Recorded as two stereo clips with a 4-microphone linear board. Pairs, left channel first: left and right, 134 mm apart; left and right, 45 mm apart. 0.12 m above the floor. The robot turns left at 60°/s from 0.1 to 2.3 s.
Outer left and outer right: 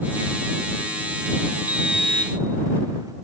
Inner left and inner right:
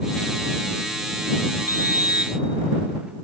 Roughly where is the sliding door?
Right.